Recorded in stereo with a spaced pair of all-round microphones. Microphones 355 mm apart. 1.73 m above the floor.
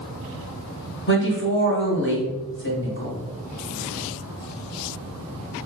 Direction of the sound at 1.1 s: 35° left (ahead or behind).